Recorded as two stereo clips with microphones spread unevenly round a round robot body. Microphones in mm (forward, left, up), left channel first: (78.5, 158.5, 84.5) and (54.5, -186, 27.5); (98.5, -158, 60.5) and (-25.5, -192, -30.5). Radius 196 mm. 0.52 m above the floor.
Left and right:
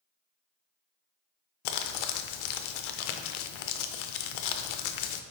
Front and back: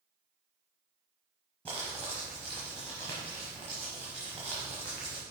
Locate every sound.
1.6 s crumpling: 100° left, 0.5 m